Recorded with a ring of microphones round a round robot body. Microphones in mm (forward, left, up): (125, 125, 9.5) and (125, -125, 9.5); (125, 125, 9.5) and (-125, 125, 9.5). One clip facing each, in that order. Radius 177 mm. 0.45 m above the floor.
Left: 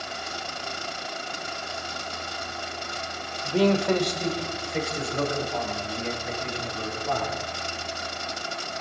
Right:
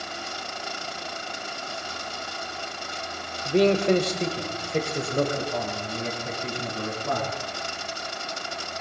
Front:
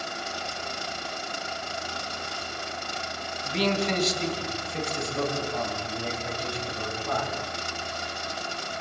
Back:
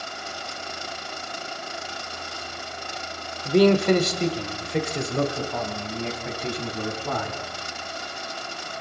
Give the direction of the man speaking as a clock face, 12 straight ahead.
5 o'clock.